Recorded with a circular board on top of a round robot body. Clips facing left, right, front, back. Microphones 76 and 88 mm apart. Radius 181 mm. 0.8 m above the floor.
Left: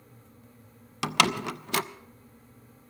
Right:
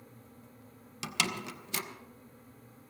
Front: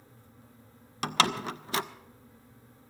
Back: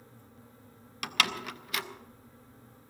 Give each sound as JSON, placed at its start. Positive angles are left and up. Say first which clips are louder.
{"t": 1.0, "sound": "a door slam", "louder": "left 10 dB, front 5 dB", "azimuth_deg": 60, "distance_m": 0.6}